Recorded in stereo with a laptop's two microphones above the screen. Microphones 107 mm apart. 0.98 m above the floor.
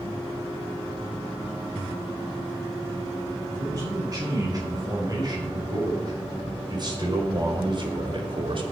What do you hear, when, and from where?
3.5 s a man speaking: 35° right (ahead or behind), 9.5 m; by 8.7 s 55° right (ahead or behind), 3.5 m